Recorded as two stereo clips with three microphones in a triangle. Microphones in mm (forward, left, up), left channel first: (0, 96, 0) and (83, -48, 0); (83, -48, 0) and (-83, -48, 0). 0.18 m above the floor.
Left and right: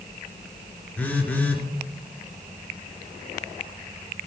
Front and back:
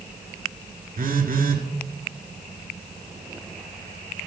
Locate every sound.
1.0 s a phone buzzing: 160° right, 1.9 m